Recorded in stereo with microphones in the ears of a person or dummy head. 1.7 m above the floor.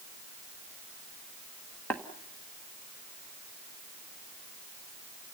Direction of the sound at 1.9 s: 5° left (ahead or behind).